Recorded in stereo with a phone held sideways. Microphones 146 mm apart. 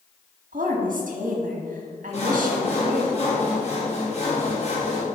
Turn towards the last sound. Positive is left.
turn(degrees=45)  # may be behind; listen again after turning